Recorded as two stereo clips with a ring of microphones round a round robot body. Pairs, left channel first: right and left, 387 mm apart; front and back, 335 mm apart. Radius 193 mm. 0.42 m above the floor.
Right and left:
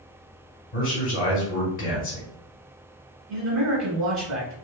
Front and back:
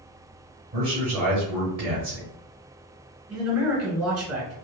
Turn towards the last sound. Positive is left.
turn(degrees=135)